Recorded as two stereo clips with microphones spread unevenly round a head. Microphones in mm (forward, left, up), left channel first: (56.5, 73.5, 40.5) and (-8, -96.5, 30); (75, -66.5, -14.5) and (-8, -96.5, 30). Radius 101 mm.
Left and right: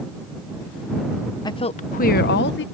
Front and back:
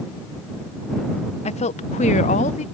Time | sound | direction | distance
1.4 | a woman speaking | 5° left | ?